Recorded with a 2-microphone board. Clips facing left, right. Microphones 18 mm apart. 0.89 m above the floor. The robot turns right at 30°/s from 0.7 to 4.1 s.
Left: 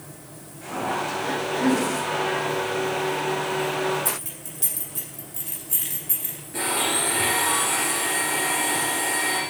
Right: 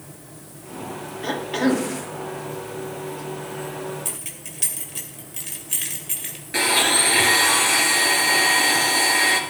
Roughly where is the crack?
No crack in this recording.